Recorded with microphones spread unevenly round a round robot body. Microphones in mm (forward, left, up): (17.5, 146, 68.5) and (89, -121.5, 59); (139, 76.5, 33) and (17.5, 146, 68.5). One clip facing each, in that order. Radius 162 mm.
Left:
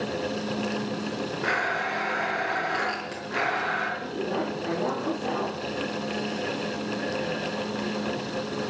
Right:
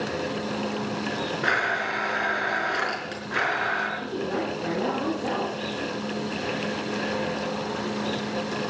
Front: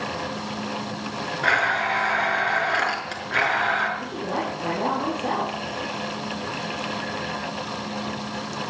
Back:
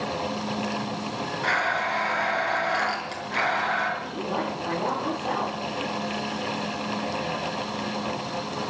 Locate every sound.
1.4 s a blender: 10° right, 5.5 m
4.0 s a woman speaking: 40° right, 5.5 m